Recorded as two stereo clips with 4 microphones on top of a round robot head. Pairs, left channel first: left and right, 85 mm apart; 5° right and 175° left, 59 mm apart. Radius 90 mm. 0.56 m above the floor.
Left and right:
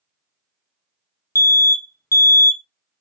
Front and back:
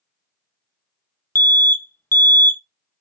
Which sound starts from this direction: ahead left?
An alarm, at 1.4 s.